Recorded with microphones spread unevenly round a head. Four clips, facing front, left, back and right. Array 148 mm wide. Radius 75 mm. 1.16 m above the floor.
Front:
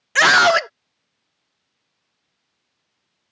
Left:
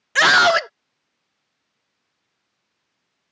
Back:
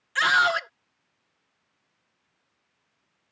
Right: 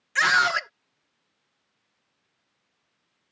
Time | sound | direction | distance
0.1 | a scream | 40° left | ?